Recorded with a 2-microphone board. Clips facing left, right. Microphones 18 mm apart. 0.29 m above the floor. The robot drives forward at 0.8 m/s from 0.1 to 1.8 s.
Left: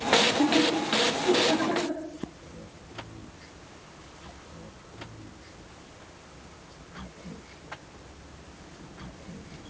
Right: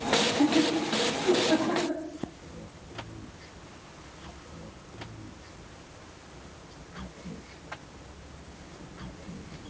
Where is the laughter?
50° left (ahead or behind), 7.5 m; by 2.0 s 40° left (ahead or behind), 8.5 m.